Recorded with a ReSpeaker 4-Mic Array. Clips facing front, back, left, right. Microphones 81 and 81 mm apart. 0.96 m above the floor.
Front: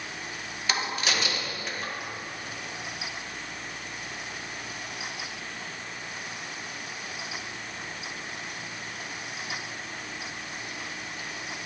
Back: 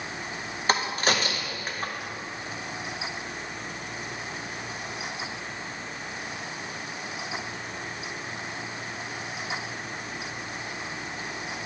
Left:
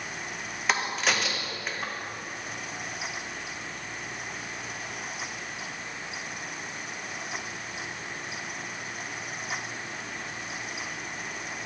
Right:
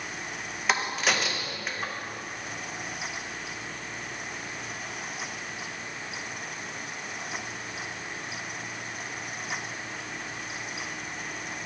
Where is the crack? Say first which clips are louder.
Back 4 dB, even; straight behind, 0.6 m.